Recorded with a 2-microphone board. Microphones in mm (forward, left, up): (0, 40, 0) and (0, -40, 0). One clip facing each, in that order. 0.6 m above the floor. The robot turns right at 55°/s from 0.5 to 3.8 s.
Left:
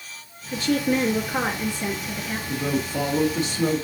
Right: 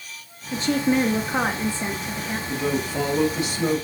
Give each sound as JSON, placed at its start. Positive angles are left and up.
{"t": 0.5, "sound": "a woman speaking", "side_deg": -20, "distance_m": 0.8}
{"t": 2.5, "sound": "a woman speaking", "azimuth_deg": -5, "distance_m": 1.7}